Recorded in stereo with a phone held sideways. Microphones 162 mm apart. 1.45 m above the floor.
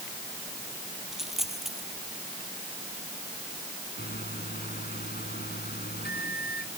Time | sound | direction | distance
1.1 | a dropped coin | centre (ahead or behind) | ?
4.0 | a microwave | 80° left | ?